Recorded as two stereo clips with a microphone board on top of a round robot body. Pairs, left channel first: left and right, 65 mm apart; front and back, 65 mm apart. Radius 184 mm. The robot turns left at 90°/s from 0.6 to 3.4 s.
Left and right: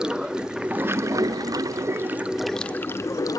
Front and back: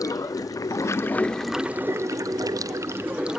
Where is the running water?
10° right, 0.8 m; by 3.4 s 95° left, 0.8 m.